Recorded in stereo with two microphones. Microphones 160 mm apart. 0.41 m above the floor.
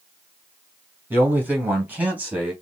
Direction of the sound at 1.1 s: 10° right (ahead or behind).